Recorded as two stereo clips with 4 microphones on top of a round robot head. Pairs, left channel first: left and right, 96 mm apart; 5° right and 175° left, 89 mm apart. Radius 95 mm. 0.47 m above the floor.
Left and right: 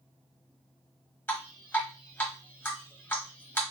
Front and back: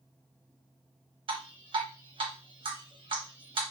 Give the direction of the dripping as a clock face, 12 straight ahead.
7 o'clock.